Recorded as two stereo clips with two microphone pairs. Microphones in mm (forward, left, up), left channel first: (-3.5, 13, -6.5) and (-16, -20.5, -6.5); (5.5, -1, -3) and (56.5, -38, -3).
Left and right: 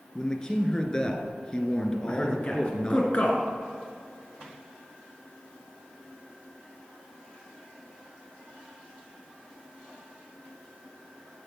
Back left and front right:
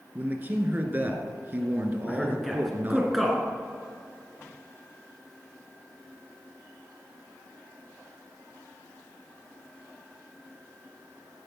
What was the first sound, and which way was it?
A man speaking, 10° left.